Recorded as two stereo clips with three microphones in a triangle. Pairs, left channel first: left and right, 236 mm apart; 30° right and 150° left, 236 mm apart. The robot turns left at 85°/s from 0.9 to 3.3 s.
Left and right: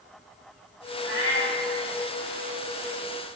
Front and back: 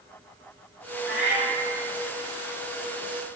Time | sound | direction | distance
1.0 | a cat meowing | 55° right | 0.9 m